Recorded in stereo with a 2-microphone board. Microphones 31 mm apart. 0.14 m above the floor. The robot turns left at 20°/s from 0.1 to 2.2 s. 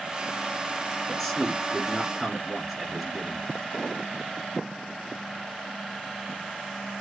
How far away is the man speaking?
About 1.5 m.